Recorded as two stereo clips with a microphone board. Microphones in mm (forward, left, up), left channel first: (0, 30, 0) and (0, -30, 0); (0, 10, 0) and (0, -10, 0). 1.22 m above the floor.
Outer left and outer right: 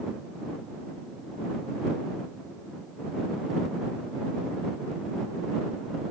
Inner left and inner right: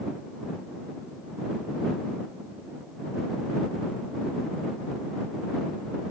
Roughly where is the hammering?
No hammering in this recording.